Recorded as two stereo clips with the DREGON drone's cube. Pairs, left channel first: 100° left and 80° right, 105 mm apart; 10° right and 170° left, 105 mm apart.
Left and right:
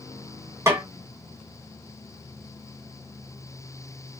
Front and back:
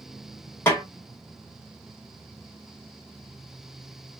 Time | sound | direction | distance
0.7 | a snare drum | 55° right | 1.2 m